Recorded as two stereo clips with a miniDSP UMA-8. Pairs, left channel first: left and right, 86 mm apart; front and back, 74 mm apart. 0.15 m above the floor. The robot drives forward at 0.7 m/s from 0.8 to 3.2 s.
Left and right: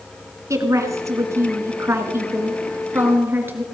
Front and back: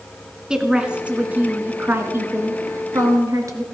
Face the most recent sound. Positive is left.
turn(degrees=-150)